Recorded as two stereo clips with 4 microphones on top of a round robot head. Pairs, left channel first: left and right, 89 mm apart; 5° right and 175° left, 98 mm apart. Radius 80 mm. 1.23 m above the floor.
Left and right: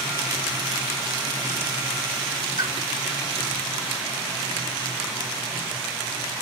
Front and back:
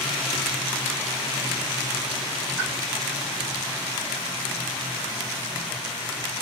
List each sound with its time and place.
2.6 s a pop: 90° right, 3.5 m